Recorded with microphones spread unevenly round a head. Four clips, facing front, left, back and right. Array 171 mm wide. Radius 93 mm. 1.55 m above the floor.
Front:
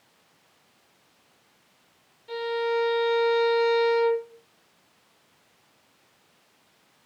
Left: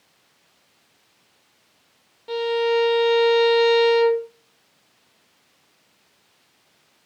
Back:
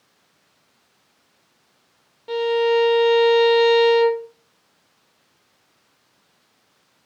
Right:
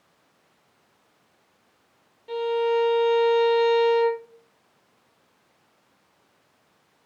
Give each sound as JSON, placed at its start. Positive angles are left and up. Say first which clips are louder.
{"t": 2.3, "sound": "a violin", "louder": "left 2 dB, back 8 dB", "azimuth_deg": 160, "distance_m": 1.1}